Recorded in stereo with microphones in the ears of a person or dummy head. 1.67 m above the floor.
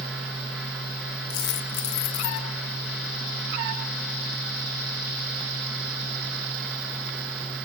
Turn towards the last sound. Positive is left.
turn(degrees=65)  # may be behind; listen again after turning